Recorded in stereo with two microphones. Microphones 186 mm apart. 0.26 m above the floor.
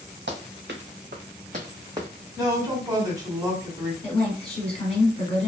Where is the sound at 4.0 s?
35° left (ahead or behind), 1.3 m.